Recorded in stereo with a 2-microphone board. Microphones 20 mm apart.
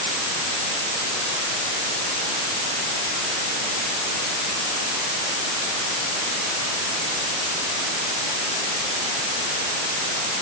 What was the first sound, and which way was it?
Only background noise.